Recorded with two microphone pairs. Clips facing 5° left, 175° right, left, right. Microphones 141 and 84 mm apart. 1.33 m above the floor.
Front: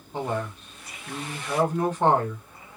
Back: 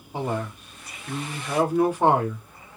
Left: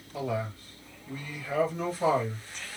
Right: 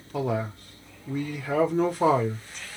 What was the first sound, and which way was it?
A man speaking, 100° right.